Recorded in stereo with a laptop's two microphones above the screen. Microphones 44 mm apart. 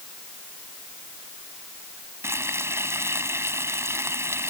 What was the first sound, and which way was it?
Frying, 80° right.